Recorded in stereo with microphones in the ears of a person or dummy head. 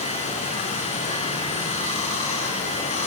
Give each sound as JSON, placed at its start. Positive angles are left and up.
{"t": 0.0, "sound": "running water", "side_deg": 35, "distance_m": 2.5}